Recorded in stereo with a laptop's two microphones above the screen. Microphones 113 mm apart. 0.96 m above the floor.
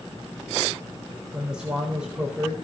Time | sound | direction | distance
1.3 | a man speaking | 5° right (ahead or behind) | 4 m